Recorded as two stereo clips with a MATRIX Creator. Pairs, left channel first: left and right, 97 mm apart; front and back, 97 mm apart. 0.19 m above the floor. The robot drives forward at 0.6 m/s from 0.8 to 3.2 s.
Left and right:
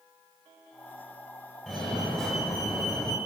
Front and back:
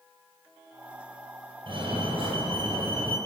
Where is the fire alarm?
Straight behind, 5 m.